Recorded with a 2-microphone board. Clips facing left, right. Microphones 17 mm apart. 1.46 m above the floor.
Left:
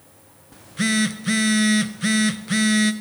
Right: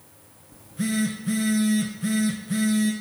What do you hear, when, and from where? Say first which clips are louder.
0.5 s a phone buzzing: left 5 dB; 50° left (ahead or behind), 0.7 m